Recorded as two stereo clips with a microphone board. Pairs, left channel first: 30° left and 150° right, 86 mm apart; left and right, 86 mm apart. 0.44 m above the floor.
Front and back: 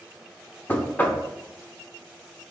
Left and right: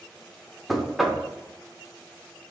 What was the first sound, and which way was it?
Knocking, 5° right.